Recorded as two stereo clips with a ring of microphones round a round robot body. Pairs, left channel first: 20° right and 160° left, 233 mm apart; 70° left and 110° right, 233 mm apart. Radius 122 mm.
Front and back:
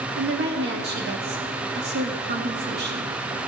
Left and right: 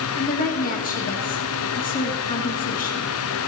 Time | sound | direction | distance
0.2 | a woman speaking | 120° left | 1.2 m